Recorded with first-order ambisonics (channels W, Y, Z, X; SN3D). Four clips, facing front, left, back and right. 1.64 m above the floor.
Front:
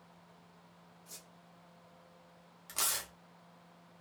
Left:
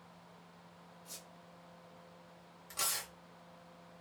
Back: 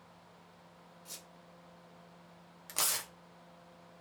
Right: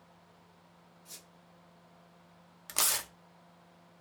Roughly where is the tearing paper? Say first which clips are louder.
Right 6 dB, back 1 dB; right.